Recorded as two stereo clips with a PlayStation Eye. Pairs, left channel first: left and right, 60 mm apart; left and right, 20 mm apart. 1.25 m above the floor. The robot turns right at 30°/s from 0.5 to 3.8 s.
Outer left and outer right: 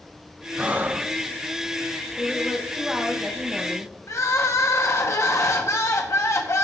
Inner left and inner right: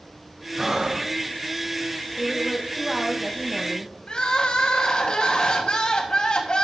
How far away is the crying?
About 1.3 m.